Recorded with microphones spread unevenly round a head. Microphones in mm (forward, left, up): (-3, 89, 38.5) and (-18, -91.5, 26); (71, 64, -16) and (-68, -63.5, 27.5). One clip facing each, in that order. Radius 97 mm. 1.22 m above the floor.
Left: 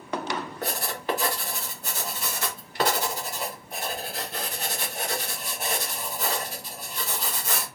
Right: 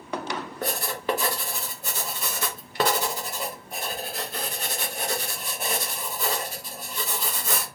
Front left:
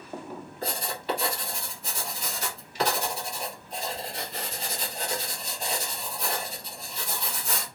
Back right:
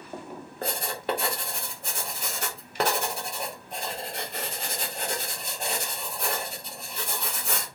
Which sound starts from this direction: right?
Writing, at 0.6 s.